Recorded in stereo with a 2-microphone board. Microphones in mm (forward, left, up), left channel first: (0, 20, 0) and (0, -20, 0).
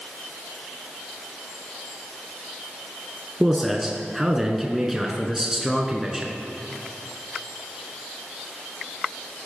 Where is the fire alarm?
No fire alarm in this recording.